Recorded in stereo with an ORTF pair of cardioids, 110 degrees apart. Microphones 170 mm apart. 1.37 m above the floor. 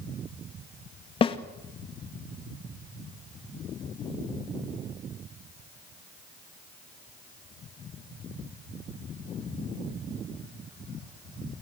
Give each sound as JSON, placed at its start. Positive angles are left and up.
{"t": 1.2, "sound": "a snare drum", "azimuth_deg": 30, "distance_m": 2.0}